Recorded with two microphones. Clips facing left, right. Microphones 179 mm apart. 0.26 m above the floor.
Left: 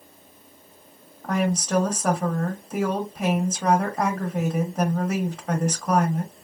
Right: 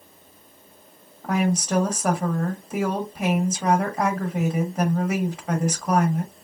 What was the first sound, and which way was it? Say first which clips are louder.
A woman speaking: right 1 dB; 5° right (ahead or behind).